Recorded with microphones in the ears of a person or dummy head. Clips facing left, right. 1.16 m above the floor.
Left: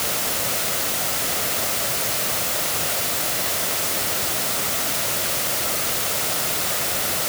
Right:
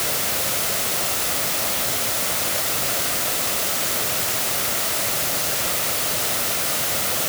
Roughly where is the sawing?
I don't hear sawing.